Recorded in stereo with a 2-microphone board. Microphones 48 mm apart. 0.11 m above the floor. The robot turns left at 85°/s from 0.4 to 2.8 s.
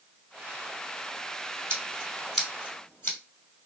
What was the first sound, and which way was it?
Scissors, 40° right (ahead or behind).